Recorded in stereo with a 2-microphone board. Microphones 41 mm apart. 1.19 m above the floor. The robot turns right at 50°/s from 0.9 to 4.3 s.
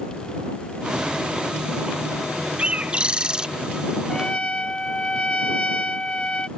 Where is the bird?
25° right (ahead or behind); by 3.5 s 15° right (ahead or behind).